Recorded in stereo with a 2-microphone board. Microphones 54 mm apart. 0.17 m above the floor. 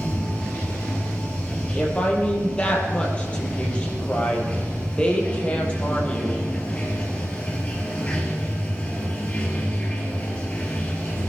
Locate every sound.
0.0 s running water: 20° left (ahead or behind), 3 m
1.8 s a woman speaking: 20° left (ahead or behind), 4 m